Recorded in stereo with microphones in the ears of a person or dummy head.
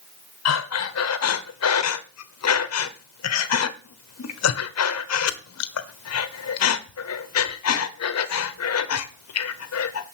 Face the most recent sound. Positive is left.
turn(degrees=85)